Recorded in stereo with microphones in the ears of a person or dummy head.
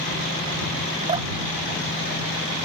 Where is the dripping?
30° right (ahead or behind).